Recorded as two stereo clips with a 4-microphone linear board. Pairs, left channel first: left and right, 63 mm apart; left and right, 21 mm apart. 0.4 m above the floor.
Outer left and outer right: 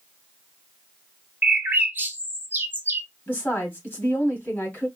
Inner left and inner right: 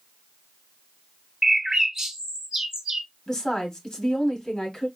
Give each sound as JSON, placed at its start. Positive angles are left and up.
{"t": 1.4, "sound": "a bird", "side_deg": -30, "distance_m": 0.9}
{"t": 3.3, "sound": "a woman speaking", "side_deg": 25, "distance_m": 2.5}